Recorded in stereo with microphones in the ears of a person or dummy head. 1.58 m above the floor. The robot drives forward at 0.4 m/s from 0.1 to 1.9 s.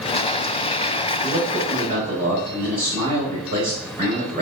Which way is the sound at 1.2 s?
50° right (ahead or behind).